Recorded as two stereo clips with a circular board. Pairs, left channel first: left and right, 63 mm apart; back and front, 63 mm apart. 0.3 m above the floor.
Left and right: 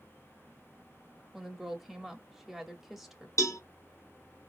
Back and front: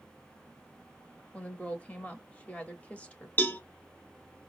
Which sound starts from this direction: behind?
A woman speaking, at 1.3 s.